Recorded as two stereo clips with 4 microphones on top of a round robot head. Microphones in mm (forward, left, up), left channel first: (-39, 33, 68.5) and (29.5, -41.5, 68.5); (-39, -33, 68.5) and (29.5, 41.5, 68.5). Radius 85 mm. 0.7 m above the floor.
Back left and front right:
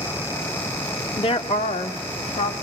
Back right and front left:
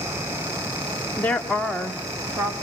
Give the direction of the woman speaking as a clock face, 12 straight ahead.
7 o'clock.